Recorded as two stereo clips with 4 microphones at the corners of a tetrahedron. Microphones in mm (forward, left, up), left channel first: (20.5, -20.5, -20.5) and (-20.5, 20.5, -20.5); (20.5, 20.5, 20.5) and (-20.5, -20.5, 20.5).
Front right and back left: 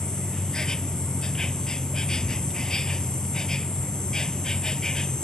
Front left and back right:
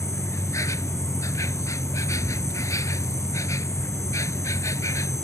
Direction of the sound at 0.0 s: 35° left.